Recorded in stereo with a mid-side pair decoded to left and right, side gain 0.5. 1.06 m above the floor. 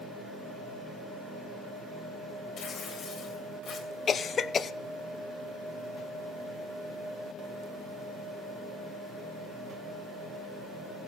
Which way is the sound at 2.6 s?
50° left.